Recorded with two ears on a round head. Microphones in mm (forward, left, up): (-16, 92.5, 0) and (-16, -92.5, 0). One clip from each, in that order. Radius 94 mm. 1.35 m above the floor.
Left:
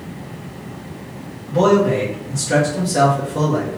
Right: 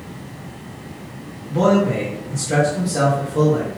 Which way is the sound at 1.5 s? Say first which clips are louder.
Left 3 dB; 5° left (ahead or behind).